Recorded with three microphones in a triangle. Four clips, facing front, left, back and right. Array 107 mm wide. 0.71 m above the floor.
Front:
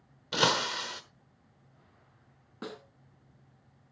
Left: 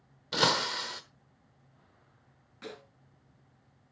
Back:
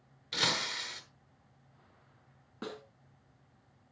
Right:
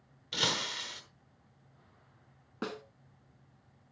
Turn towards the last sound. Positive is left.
turn(degrees=-85)